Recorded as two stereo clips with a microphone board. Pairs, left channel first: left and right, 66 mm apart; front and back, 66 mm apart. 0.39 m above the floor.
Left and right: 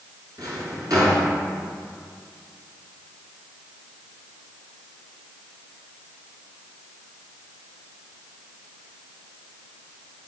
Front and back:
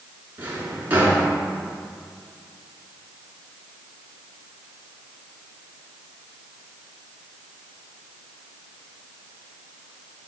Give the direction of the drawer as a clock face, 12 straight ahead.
4 o'clock.